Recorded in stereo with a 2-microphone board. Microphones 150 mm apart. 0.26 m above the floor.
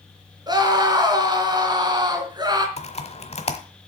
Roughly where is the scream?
Right.